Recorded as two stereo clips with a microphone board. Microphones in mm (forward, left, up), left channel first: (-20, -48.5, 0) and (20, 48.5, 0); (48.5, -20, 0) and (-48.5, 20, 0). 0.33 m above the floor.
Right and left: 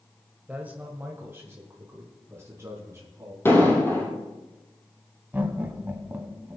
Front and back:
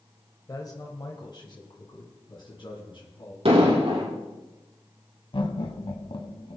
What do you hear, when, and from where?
0.5 s a man speaking: straight ahead, 1.5 m; by 3.4 s 10° left, 3.5 m
3.5 s an explosion: straight behind, 4 m
5.3 s laughter: straight ahead, 1.9 m